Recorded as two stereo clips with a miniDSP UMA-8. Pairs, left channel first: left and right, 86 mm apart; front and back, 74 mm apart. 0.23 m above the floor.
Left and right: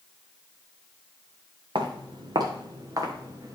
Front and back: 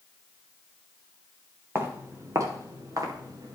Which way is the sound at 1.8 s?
120° right.